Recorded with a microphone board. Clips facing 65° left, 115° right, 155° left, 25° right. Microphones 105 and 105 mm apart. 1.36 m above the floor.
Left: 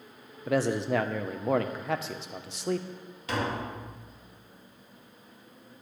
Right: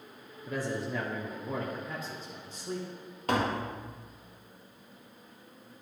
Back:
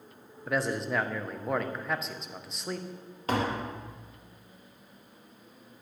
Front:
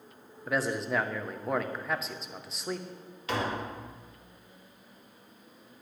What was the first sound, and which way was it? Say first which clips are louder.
A man speaking: left 8 dB, even; 65° left.